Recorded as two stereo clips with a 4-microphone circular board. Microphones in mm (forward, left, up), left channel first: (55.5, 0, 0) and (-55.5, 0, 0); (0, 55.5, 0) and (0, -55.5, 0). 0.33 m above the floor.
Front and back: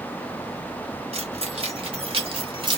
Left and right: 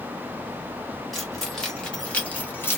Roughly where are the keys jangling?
Behind.